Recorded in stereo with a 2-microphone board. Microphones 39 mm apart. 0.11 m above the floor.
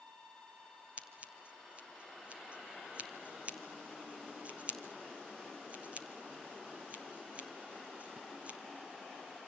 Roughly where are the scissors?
Right.